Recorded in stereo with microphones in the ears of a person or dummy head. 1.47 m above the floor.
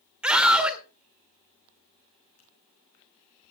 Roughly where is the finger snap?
Left.